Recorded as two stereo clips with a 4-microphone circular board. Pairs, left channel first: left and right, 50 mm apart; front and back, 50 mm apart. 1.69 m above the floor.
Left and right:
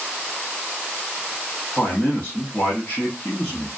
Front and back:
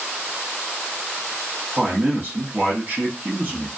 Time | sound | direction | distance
1.8 | a man speaking | 145° left | 1.1 m